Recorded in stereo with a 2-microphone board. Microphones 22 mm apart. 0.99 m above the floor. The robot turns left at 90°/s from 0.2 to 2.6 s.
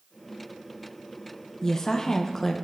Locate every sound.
1.6 s a woman speaking: 25° left (ahead or behind), 0.6 m; by 2.5 s 10° left (ahead or behind), 0.6 m